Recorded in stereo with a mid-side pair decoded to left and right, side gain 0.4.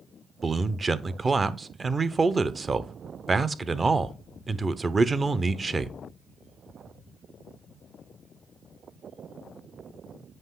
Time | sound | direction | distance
0.4 | a man speaking | 35° right | 0.8 m